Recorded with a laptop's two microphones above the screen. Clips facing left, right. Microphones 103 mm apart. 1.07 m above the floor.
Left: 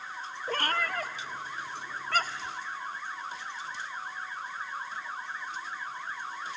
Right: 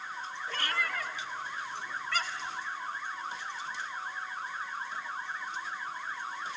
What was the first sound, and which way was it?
A cat meowing, 45° left (ahead or behind).